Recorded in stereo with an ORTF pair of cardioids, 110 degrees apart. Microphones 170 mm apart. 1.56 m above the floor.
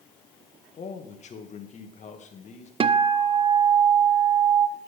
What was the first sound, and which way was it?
A man speaking, 40° left.